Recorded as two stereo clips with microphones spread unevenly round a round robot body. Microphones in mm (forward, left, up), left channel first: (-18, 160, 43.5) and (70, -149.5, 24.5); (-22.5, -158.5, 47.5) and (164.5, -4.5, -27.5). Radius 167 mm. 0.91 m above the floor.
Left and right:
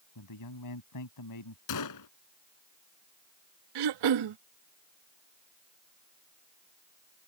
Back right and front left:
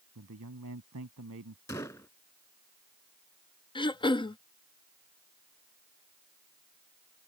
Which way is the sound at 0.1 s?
80° left.